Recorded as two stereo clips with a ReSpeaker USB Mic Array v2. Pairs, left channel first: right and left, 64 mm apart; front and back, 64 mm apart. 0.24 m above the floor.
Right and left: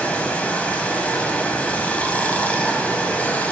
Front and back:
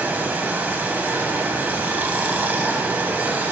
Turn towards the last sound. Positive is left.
turn(degrees=-140)